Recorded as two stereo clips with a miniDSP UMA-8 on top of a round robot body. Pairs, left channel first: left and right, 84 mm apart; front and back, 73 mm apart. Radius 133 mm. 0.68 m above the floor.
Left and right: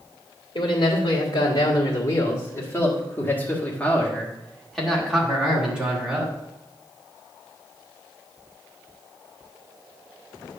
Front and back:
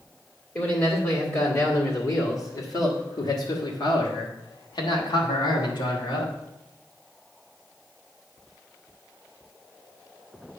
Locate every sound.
0.6 s a man speaking: 60° left, 2.5 m; by 6.3 s 15° right, 2.5 m